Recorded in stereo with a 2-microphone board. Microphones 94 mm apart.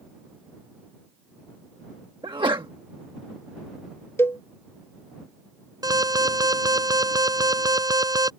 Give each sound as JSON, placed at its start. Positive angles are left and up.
{"t": 2.2, "sound": "a sneeze", "side_deg": -60}
{"t": 4.2, "sound": "a cowbell", "side_deg": 25}
{"t": 5.8, "sound": "an alarm", "side_deg": -40}